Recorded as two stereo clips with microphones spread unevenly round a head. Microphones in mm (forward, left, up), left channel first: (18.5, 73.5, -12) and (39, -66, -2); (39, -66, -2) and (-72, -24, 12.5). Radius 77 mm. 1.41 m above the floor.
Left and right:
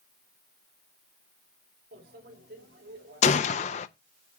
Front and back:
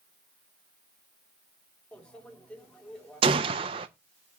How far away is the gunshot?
About 0.6 m.